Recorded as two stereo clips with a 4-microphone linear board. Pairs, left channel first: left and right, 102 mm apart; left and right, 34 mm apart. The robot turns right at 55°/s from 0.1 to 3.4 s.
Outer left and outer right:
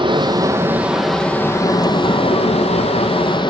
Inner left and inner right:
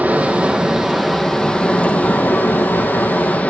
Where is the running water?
50° right, 1.1 m; by 3.5 s 130° left, 1.1 m.